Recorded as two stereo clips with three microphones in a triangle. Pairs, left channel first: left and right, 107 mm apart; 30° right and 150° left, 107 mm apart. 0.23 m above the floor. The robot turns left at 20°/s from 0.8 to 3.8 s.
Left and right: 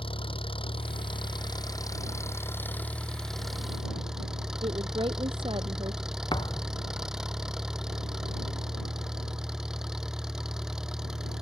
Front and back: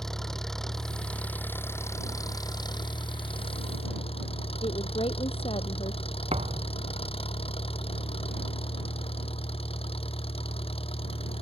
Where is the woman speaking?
55° right.